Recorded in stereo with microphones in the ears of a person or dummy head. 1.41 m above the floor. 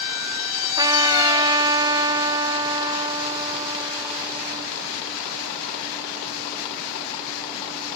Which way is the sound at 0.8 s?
20° right (ahead or behind).